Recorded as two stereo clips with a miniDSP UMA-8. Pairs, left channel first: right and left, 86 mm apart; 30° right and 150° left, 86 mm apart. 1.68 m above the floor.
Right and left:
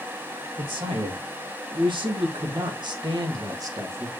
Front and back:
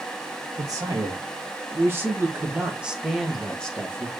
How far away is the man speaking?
About 2 m.